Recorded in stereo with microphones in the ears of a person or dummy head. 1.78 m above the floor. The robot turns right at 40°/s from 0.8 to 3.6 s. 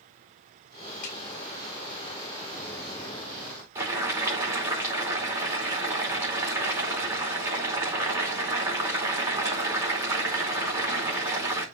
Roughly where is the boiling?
Centre.